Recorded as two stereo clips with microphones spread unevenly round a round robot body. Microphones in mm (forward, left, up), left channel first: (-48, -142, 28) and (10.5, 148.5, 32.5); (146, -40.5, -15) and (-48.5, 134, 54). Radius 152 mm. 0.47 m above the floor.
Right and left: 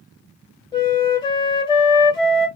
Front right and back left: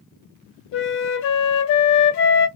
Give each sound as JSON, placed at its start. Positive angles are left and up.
{"t": 0.7, "sound": "a flute", "azimuth_deg": -25, "distance_m": 1.5}